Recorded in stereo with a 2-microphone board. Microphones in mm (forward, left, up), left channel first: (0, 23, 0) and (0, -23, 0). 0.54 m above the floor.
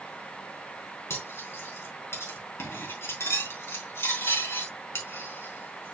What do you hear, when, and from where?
1.1 s cutlery clinking: 70° left (ahead or behind), 4 m